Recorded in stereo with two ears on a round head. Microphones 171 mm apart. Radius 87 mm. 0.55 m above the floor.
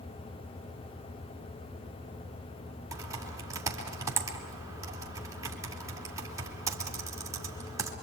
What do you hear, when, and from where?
2.9 s typing on a keyboard: 15° right (ahead or behind), 3 m